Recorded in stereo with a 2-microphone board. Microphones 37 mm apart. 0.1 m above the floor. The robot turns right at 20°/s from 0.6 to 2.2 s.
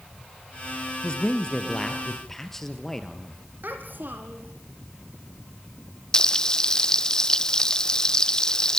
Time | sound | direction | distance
1.0 | a man speaking | 30° left (ahead or behind) | 2.5 m
3.6 | a child speaking | 60° right (ahead or behind) | 3.5 m
6.1 | frying | 20° left (ahead or behind) | 0.5 m